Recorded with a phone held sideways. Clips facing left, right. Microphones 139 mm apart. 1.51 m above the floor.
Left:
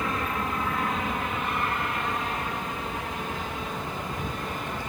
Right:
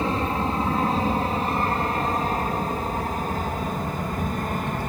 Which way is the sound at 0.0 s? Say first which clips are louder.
Right 5 dB; 30° right (ahead or behind).